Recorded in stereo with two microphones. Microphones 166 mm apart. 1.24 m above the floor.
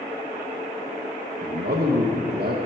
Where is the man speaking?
75° right (ahead or behind), 0.8 m.